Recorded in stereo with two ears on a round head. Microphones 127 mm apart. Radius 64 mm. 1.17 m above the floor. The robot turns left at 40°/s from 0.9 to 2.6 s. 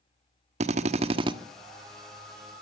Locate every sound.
0.6 s a drill: 50° right (ahead or behind), 1.4 m; by 1.3 s 35° right (ahead or behind), 1.4 m